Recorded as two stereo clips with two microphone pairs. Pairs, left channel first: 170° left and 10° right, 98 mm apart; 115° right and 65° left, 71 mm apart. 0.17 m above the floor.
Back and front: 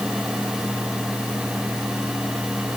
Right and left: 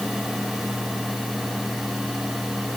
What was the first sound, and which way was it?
Only background noise.